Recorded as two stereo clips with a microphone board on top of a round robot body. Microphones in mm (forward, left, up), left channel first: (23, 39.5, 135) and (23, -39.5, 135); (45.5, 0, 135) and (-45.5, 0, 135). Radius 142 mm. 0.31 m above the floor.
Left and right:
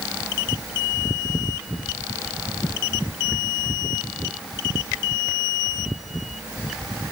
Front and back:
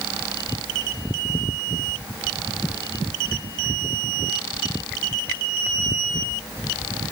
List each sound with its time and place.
Only background noise.